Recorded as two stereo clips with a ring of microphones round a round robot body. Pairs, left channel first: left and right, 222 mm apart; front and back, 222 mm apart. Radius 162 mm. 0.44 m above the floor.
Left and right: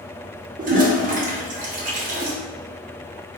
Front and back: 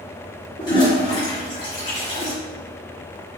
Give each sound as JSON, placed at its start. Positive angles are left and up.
{"t": 0.6, "sound": "a toilet flushing", "azimuth_deg": -60, "distance_m": 1.6}